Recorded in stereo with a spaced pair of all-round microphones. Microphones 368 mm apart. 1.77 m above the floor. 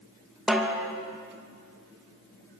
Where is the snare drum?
Centre (ahead or behind), 2.5 m.